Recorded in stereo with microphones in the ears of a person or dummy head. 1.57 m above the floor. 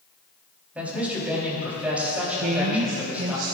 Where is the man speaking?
10° right (ahead or behind), 3.5 m.